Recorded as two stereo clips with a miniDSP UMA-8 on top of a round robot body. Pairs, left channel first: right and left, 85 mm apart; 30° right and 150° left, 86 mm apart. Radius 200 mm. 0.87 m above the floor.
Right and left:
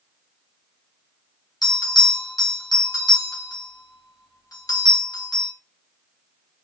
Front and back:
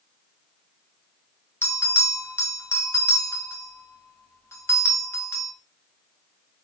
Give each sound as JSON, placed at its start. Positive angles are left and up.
{"t": 1.6, "sound": "a bell", "azimuth_deg": -80, "distance_m": 1.2}